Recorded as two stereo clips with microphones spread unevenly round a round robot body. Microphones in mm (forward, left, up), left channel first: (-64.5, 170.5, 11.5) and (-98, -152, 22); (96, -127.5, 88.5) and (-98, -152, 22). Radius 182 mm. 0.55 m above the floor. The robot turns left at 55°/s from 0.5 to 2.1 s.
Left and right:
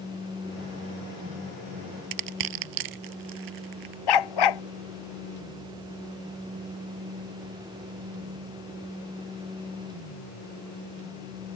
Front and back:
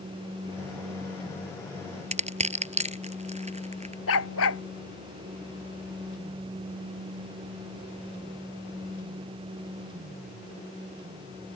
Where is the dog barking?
55° left.